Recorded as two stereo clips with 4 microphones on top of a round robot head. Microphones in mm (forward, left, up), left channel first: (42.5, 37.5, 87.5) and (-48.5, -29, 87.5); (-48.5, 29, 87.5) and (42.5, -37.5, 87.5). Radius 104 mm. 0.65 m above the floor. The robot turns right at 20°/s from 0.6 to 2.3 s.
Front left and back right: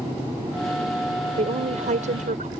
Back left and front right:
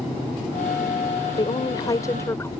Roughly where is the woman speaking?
Behind.